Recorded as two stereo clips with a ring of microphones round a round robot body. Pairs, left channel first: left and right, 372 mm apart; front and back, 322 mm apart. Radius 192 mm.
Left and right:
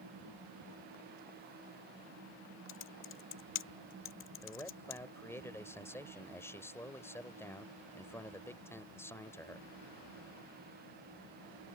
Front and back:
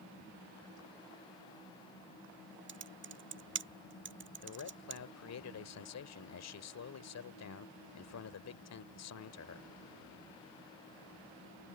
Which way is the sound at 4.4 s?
10° left.